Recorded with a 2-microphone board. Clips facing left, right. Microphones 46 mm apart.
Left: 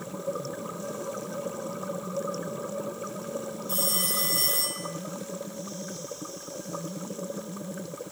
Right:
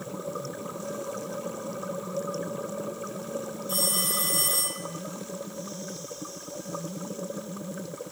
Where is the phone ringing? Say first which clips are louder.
Right 1 dB; 15° right (ahead or behind), 1.3 m.